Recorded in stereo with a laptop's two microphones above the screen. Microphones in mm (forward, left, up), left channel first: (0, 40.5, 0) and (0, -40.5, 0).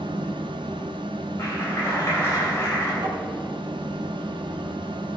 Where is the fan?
85° right, 1.0 m.